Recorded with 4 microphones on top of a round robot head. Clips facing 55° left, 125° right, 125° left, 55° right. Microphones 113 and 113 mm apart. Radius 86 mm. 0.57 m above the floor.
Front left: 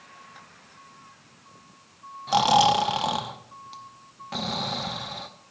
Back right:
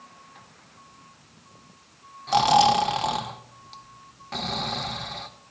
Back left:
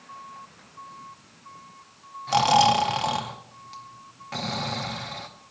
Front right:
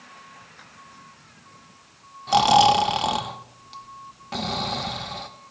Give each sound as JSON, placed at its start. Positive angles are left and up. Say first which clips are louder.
{"t": 2.3, "sound": "snoring", "louder": "back right 1 dB, front right 3 dB", "azimuth_deg": -15, "distance_m": 0.9}